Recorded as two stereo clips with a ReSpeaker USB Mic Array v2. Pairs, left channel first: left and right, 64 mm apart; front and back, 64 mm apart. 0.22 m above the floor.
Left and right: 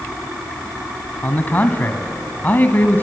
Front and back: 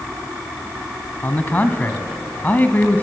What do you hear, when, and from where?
1.2 s a man speaking: 45° left, 1.4 m